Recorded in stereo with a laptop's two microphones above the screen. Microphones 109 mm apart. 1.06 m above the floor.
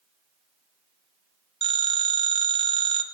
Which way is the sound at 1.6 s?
50° right (ahead or behind).